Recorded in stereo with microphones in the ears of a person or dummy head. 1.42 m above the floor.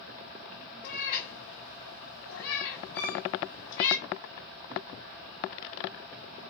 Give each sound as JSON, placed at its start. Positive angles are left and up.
{"t": 0.8, "sound": "a cat meowing", "side_deg": 50, "distance_m": 1.1}
{"t": 3.0, "sound": "a violin", "side_deg": 45, "distance_m": 1.5}